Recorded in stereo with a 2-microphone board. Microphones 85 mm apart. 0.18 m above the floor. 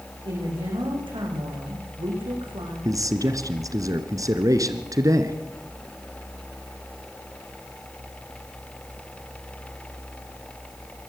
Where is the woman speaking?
80° right, 9 m.